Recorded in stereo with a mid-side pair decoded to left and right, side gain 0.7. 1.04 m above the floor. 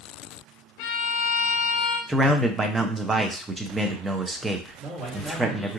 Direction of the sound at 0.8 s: 65° left.